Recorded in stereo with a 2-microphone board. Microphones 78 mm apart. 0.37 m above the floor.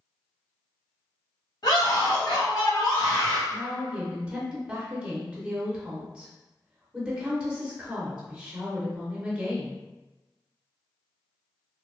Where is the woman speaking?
15° right (ahead or behind), 0.8 m.